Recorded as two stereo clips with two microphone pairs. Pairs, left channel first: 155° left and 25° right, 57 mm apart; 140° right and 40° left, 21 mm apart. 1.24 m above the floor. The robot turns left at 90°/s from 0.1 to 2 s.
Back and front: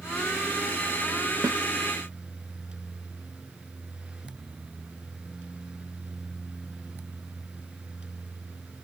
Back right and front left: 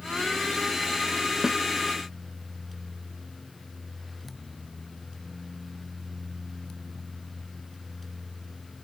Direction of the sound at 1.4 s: 20° right.